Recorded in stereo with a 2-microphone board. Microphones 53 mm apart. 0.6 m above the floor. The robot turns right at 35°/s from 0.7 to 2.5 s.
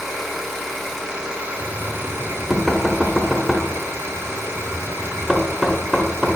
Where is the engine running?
175° left, 1.6 m; by 6.4 s 120° right, 1.6 m.